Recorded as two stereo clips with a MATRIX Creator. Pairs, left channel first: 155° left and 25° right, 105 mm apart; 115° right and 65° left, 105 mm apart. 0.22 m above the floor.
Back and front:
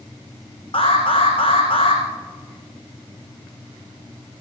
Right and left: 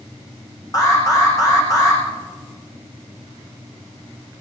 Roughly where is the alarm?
Behind.